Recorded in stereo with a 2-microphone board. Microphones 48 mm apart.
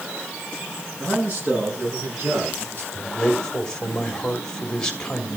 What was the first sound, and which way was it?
A man speaking, 40° right (ahead or behind).